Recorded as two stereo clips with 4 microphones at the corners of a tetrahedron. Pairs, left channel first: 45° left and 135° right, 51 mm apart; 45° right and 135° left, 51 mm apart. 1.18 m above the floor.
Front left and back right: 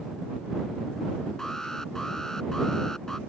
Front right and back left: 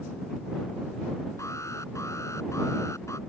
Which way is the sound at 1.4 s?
35° right.